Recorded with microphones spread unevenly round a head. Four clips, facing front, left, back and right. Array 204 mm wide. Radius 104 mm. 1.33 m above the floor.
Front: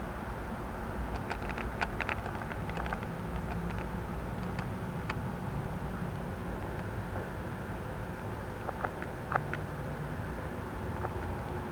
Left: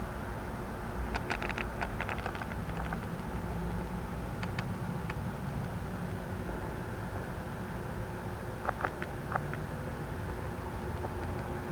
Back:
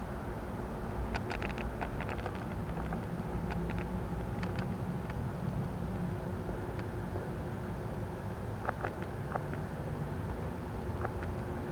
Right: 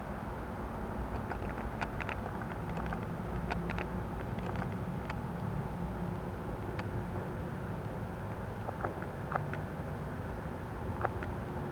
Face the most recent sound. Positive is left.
No sound to turn to.